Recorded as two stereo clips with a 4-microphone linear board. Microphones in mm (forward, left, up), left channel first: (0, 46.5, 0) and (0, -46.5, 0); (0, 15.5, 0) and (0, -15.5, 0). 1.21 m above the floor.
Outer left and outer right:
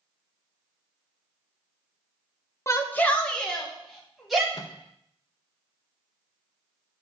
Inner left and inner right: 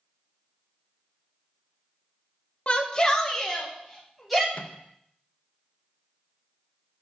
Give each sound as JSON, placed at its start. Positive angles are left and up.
{"t": 2.7, "sound": "a shout", "side_deg": 30, "distance_m": 1.0}
{"t": 4.5, "sound": "a microwave", "side_deg": 45, "distance_m": 0.5}